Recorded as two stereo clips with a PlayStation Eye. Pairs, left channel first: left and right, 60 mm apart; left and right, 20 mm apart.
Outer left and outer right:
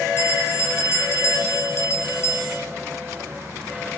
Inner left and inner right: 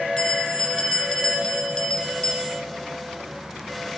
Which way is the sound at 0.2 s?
50° left (ahead or behind).